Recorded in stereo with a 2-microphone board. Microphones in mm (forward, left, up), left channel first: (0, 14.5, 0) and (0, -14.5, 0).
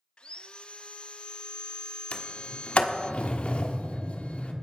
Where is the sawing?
40° left (ahead or behind), 0.5 m.